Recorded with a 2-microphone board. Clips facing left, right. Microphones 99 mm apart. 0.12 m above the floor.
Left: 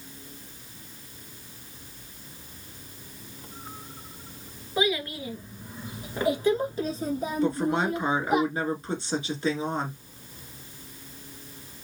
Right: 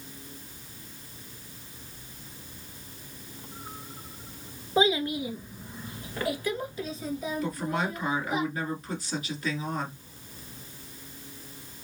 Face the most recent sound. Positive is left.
turn(degrees=30)  # may be behind; listen again after turning